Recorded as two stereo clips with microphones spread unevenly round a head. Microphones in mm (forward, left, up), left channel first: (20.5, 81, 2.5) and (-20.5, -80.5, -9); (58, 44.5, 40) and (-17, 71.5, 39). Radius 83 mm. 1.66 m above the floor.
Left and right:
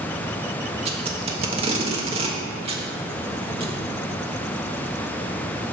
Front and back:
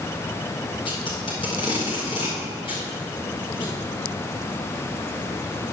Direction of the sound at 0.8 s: 50° right.